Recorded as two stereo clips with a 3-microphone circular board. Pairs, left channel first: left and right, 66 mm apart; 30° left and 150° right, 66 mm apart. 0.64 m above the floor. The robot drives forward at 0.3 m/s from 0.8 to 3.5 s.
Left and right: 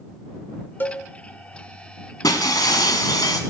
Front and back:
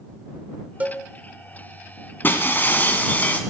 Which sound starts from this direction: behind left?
A cowbell, at 0.8 s.